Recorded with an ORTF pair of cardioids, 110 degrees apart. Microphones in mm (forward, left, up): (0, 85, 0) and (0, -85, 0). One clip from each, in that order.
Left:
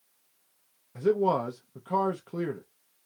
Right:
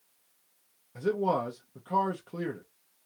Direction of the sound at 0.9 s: 10° left.